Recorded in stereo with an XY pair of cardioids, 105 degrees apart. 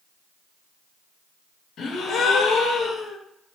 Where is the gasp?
55° left, 0.9 m.